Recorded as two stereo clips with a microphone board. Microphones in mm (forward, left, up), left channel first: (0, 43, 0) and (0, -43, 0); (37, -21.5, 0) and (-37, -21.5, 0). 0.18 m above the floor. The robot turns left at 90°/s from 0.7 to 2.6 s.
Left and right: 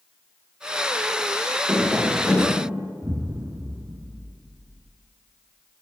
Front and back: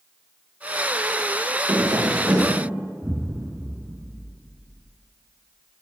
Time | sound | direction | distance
1.7 | tapping | 160° right | 6.5 m
3.0 | an explosion | 125° right | 0.8 m